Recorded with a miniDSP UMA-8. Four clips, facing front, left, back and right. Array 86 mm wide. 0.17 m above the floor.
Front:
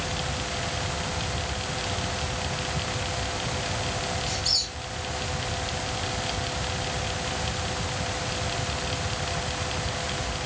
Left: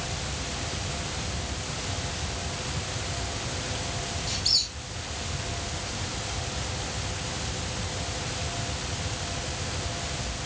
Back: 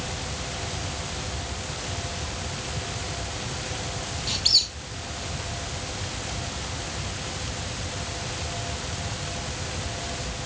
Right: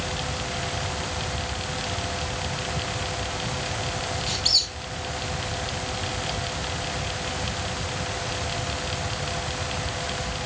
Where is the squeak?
150° right, 1.5 m.